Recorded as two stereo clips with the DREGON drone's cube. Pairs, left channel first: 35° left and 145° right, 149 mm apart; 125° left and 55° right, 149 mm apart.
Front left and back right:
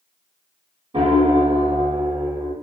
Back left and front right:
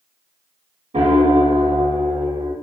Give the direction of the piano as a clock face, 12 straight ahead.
3 o'clock.